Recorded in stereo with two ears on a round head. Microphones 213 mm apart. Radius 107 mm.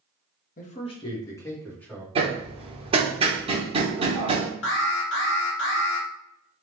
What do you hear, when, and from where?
0.6 s a man speaking: 40° left (ahead or behind), 1.0 m; by 2.0 s 5° left (ahead or behind), 2 m
2.1 s hammering: 25° right (ahead or behind), 0.9 m
4.6 s an alarm: 60° left (ahead or behind), 0.9 m